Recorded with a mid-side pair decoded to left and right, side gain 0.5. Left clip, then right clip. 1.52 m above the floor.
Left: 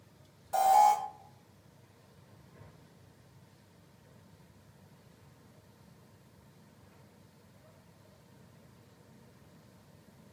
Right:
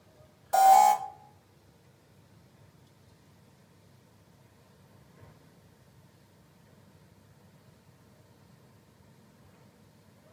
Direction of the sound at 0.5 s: 45° right.